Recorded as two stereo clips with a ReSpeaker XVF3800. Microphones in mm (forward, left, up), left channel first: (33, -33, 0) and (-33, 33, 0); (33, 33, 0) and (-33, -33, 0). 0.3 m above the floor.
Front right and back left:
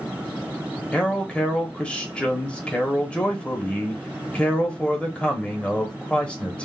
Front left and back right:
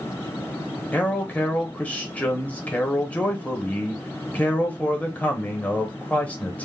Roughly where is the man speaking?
Ahead.